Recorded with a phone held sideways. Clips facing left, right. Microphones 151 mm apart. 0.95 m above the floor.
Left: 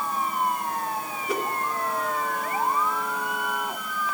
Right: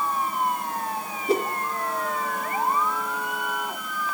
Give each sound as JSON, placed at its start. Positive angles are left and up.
{"t": 1.3, "sound": "a whoosh", "side_deg": -35, "distance_m": 3.0}